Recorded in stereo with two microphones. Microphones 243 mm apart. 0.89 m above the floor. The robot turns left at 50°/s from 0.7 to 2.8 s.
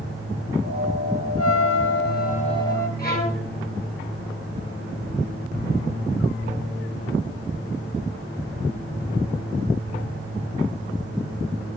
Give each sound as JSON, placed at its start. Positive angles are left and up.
{"t": 1.4, "sound": "a trumpet", "azimuth_deg": 80, "distance_m": 0.8}
{"t": 3.0, "sound": "a violin", "side_deg": 40, "distance_m": 4.5}